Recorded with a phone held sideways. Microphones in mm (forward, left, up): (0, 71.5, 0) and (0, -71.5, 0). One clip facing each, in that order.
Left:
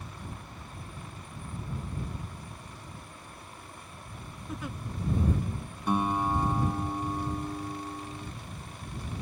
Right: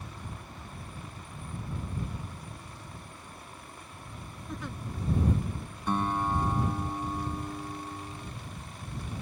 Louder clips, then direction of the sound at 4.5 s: Left 1 dB; 5° left (ahead or behind).